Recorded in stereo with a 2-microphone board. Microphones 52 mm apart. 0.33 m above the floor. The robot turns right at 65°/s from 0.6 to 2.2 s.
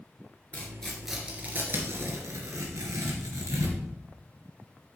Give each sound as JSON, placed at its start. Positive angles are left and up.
{"t": 0.5, "sound": "tearing paper", "side_deg": 25, "distance_m": 1.9}